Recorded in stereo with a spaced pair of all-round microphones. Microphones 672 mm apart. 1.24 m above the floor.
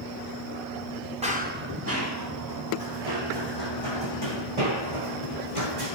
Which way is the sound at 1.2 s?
10° right (ahead or behind).